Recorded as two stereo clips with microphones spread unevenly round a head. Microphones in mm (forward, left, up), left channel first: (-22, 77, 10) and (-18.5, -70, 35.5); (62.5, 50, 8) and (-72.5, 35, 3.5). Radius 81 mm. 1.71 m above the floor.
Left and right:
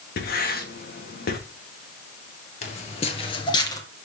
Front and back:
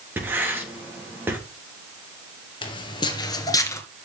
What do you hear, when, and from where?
0.2 s writing: 110° left, 3.5 m
2.6 s footsteps: 45° left, 2.5 m; by 3.8 s 25° left, 1.7 m